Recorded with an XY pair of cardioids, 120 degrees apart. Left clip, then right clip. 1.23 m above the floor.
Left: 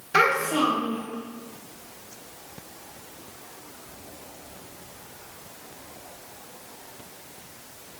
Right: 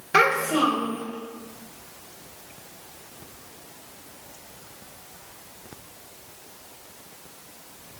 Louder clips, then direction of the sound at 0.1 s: Right 1 dB; 45° right.